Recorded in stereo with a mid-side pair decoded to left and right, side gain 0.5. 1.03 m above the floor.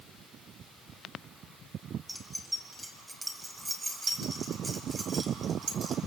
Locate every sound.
2.1 s keys jangling: 5° right, 4 m; by 6.0 s 45° right, 4 m